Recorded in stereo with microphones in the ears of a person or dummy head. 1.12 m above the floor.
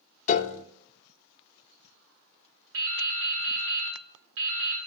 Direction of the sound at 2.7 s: 60° right (ahead or behind).